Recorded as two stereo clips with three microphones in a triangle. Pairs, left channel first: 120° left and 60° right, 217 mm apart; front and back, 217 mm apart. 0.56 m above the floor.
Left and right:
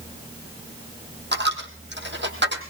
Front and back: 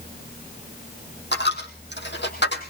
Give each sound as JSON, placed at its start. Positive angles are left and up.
{"t": 1.3, "sound": "a dropped coin", "azimuth_deg": -30, "distance_m": 2.5}